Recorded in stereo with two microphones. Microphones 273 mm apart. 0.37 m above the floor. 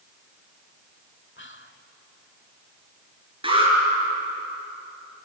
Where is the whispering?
45° left (ahead or behind), 1.2 m.